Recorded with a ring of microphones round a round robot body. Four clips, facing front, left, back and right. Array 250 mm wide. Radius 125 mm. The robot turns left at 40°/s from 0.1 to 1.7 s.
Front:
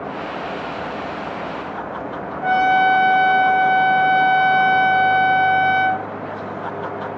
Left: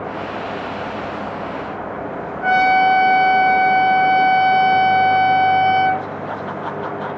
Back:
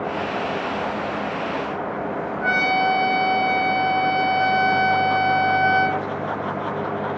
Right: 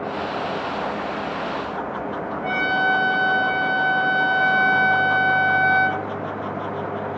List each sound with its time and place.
2.4 s a trumpet: 125° left, 1.7 m